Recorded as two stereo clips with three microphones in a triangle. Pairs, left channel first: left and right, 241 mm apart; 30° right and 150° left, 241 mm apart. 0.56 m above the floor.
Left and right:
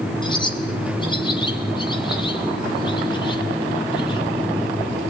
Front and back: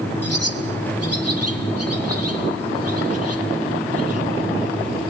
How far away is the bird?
About 3.5 m.